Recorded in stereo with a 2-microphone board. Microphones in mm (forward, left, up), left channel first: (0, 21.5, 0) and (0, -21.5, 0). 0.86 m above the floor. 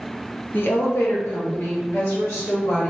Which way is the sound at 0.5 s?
50° left (ahead or behind).